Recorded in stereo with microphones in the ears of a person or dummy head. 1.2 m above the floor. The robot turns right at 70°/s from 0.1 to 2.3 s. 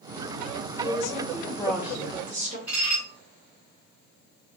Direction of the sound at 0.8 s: 115° left.